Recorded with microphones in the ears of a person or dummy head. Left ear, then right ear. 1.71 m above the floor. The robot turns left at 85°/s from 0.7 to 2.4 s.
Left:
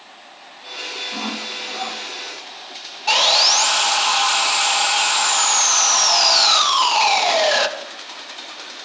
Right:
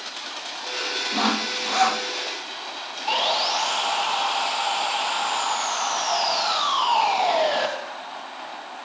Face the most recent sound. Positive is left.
turn(degrees=55)  # may be behind; listen again after turning